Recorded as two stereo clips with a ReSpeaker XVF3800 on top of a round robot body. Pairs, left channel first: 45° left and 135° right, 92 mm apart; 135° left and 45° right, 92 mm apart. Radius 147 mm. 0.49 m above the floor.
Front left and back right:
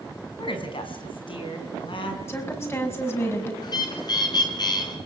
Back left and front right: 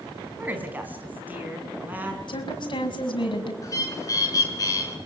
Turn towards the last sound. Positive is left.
turn(degrees=85)